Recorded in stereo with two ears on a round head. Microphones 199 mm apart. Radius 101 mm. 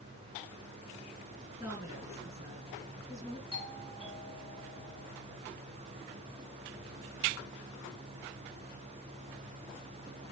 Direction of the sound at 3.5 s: 25° right (ahead or behind).